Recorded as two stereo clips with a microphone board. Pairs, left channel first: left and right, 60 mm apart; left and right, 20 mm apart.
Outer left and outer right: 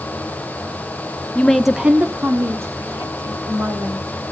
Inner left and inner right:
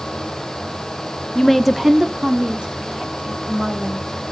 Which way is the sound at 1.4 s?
20° left (ahead or behind).